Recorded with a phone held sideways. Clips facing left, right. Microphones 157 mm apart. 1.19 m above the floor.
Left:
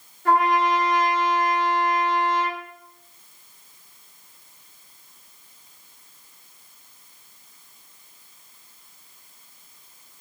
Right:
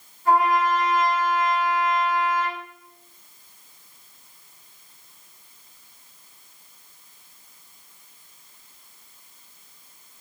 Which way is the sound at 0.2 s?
80° left.